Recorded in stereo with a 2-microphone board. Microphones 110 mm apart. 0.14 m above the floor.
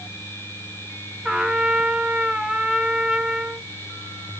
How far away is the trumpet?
About 0.6 m.